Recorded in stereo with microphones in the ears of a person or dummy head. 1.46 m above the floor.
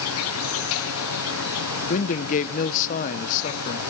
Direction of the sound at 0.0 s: 70° left (ahead or behind).